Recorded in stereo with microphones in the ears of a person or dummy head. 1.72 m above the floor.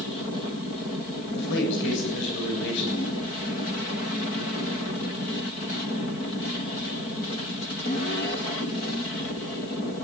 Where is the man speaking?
70° left (ahead or behind), 8 m.